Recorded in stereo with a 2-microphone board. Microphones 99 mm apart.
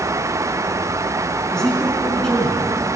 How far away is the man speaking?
About 4 m.